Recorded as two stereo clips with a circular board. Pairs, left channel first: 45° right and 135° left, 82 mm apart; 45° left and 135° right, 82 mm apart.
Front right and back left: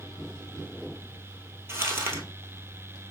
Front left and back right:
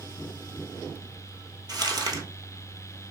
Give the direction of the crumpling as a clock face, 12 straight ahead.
6 o'clock.